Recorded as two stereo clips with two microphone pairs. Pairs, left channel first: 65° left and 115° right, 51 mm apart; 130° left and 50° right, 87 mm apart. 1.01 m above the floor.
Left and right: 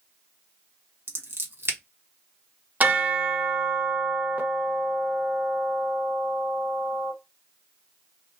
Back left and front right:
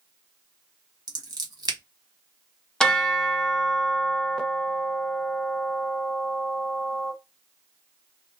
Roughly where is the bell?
Behind right.